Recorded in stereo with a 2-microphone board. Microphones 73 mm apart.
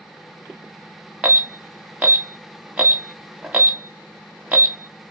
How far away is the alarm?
About 0.9 m.